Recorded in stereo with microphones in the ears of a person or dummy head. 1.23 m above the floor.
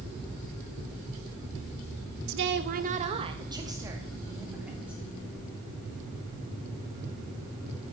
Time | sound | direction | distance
2.3 | a woman speaking | 70° right (ahead or behind) | 1.2 m